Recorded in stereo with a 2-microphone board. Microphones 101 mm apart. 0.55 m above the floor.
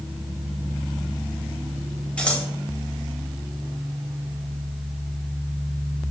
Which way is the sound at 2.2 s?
10° left (ahead or behind).